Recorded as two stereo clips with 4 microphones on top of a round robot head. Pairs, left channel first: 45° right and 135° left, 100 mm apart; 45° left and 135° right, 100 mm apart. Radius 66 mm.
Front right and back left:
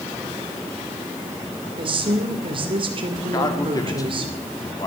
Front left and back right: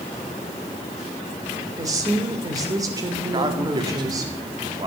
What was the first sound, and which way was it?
A woman speaking, 170° left.